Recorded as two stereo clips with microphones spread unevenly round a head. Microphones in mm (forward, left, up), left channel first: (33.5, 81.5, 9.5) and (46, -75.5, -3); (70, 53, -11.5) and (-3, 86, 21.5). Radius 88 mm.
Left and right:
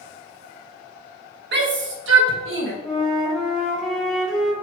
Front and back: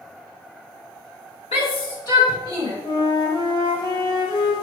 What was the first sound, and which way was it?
A shout, 75° right.